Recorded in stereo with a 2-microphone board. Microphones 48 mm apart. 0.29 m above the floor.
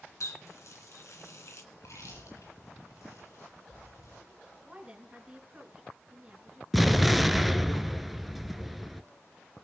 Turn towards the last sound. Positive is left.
turn(degrees=-5)  # may be behind; listen again after turning